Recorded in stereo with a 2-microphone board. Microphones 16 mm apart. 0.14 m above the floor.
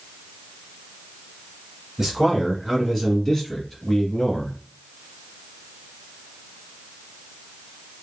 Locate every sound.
2.0 s a man speaking: 25° right (ahead or behind), 1.8 m; by 4.6 s 20° left (ahead or behind), 1.6 m